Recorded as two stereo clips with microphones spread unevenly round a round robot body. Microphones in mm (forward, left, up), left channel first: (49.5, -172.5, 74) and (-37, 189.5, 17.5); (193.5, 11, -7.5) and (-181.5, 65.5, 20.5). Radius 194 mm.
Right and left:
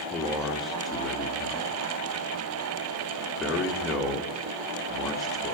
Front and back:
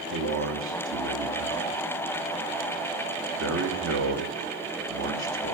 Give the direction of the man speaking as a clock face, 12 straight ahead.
6 o'clock.